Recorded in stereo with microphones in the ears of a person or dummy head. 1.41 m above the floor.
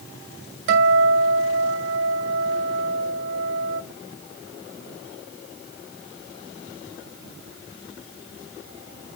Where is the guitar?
65° right (ahead or behind), 2 m.